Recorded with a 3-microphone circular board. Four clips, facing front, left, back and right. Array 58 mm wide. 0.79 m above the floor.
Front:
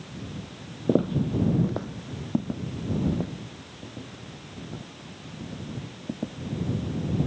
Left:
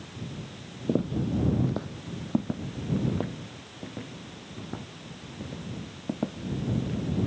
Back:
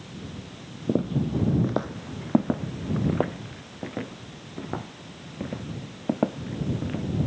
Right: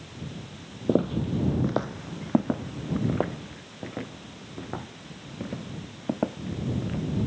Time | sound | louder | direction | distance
0.9 | footsteps | right 3 dB, front 2 dB | 50° right | ?